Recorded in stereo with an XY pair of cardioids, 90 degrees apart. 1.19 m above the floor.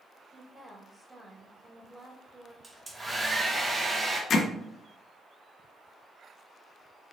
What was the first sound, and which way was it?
A woman speaking, 20° right.